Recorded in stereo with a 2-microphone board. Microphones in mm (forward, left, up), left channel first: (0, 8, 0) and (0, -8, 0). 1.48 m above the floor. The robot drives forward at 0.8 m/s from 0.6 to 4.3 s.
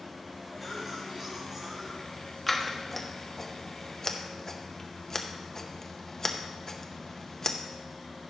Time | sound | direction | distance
0.6 | a cough | 20° right (ahead or behind) | 3.5 m
2.5 | scissors | 15° left (ahead or behind) | 1.4 m